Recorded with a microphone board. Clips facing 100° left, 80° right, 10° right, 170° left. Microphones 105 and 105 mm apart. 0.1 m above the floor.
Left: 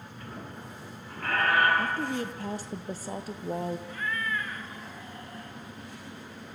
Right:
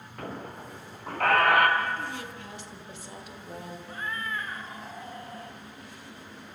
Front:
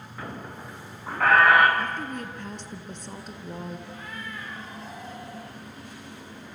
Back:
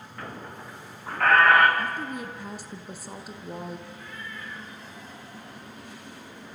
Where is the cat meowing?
15° right, 2 m.